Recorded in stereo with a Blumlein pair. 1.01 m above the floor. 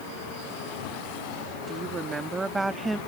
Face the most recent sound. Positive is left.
turn(degrees=-5)